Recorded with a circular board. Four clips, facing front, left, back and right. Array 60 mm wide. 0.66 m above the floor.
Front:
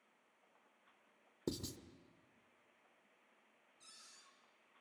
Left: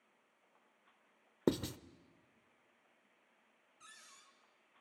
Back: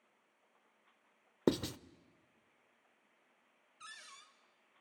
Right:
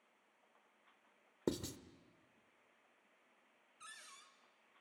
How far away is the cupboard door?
About 2.5 m.